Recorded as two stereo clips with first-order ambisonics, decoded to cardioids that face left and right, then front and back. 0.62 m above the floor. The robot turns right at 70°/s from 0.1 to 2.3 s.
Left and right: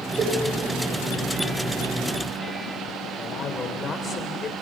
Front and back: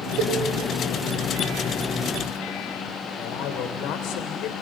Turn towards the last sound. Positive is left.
turn(degrees=20)